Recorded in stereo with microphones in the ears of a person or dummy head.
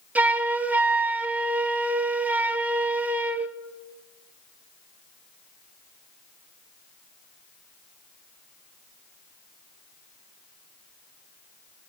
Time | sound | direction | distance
0.1 | a flute | 10° right (ahead or behind) | 0.8 m